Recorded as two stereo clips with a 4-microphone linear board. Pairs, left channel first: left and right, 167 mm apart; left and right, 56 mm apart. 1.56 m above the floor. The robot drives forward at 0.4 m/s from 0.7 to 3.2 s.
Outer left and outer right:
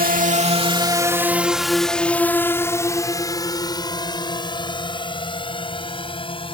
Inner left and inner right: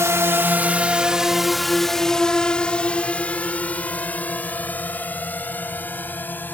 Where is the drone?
60° right (ahead or behind); by 6.5 s 30° left (ahead or behind).